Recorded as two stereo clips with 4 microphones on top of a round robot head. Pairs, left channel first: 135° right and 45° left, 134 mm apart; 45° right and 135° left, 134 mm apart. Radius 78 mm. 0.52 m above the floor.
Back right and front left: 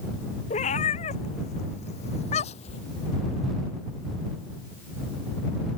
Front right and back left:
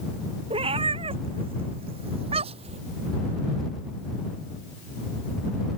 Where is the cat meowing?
175° right; by 2.8 s straight behind.